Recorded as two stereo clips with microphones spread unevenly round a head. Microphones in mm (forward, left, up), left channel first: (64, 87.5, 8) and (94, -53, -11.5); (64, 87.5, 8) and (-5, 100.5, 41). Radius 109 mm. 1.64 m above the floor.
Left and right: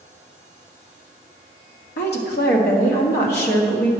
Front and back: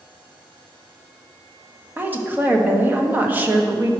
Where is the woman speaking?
105° left, 1.5 m.